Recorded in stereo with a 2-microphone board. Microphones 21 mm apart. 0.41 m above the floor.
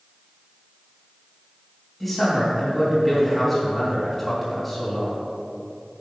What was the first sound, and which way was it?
A man speaking, 5° right (ahead or behind).